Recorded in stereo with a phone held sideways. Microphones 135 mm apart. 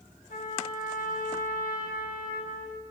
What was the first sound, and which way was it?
A trumpet, 85° left.